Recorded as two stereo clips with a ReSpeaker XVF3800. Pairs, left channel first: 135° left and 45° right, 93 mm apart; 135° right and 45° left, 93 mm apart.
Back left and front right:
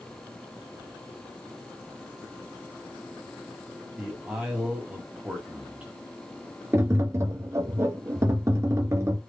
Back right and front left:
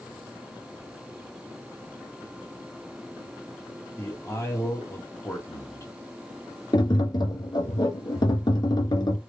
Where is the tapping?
105° right, 0.7 m.